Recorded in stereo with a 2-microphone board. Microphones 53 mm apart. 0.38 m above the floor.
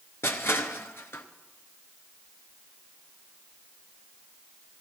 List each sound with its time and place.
0.2 s crushing: 55° left (ahead or behind), 0.9 m